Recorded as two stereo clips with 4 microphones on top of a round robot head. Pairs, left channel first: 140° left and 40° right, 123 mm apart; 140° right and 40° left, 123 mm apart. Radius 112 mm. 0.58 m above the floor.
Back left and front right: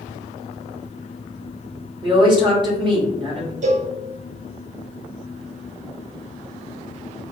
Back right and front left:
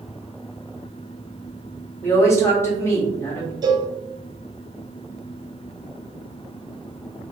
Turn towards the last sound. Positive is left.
turn(degrees=-15)